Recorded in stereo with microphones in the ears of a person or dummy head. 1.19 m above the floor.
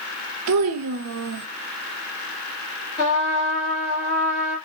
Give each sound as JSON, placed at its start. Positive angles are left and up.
{"t": 0.5, "sound": "a child speaking", "side_deg": -80, "distance_m": 0.6}
{"t": 3.0, "sound": "a trumpet", "side_deg": 40, "distance_m": 1.5}